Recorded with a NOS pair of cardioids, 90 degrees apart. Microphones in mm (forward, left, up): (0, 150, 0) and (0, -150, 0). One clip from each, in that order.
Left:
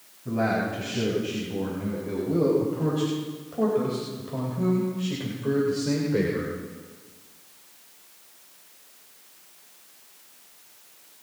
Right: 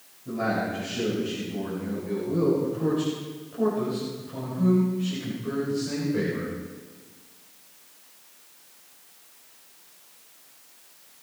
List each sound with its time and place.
0.2 s a man speaking: 50° left, 7 m; by 6.6 s 60° left, 3.5 m